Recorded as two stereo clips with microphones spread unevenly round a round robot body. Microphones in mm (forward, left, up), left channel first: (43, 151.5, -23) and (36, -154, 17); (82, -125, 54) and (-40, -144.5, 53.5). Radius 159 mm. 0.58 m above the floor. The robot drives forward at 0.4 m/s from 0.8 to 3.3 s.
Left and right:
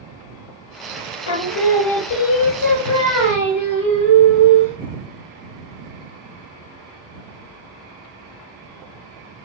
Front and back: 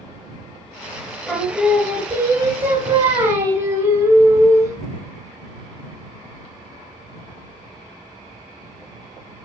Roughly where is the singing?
Left.